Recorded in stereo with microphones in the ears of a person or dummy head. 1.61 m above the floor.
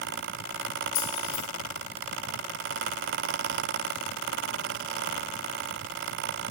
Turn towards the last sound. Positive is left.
turn(degrees=55)  # may be behind; listen again after turning